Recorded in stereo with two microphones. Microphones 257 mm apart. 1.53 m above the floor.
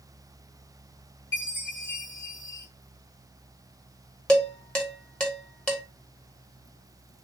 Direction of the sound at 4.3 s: 5° left (ahead or behind).